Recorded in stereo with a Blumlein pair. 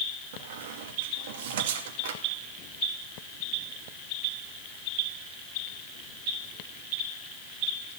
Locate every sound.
0.3 s a squeak: 55° right, 2.5 m